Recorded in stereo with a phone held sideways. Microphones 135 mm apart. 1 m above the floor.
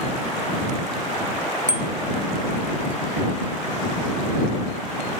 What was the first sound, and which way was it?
A bicycle bell, 75° right (ahead or behind).